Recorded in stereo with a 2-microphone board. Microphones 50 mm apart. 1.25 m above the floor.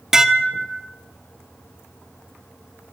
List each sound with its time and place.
0.1 s dishes clattering: 10° right (ahead or behind), 1.4 m